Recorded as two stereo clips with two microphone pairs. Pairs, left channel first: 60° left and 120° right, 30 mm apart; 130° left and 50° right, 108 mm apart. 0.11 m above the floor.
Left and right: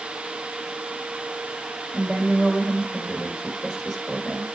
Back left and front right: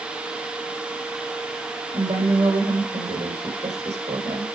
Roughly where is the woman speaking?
Ahead right.